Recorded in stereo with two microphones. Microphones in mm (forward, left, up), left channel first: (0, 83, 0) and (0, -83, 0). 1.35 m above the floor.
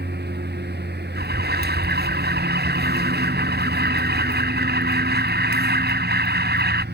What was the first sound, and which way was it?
A lawn mower, 85° right.